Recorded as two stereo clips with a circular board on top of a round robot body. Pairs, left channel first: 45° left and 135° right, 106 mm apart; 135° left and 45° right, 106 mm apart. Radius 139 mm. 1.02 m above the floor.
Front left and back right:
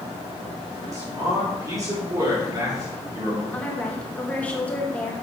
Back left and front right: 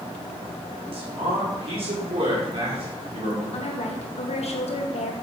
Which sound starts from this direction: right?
A man speaking, at 0.9 s.